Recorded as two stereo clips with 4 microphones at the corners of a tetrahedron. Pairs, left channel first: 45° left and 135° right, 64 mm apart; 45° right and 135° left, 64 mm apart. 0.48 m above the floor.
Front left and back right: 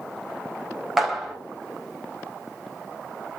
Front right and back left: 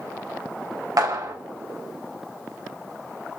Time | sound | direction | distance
1.0 | a clap | 135° left | 3 m